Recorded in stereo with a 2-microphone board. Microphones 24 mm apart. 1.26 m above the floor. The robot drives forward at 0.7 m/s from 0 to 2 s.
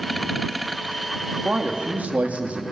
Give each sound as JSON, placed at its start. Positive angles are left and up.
{"t": 1.4, "sound": "a man speaking", "side_deg": -80, "distance_m": 2.5}